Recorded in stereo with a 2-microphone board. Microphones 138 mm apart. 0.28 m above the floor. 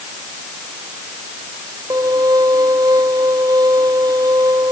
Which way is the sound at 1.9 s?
25° right (ahead or behind).